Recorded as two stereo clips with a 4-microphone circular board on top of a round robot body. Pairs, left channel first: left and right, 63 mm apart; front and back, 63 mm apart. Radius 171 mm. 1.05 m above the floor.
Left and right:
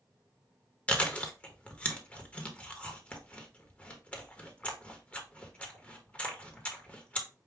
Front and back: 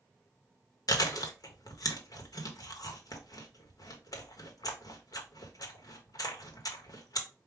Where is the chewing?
20° left, 1.1 m.